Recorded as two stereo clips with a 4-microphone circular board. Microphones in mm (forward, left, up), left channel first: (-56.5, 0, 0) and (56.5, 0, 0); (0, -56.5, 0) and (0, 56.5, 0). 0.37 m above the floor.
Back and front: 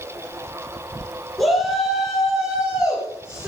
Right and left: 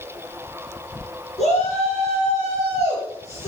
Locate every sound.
1.4 s a shout: 90° right, 4 m; by 3.5 s 75° right, 4.5 m